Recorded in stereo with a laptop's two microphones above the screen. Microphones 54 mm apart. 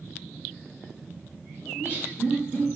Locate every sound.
1.7 s laughter: 35° right (ahead or behind), 1.2 m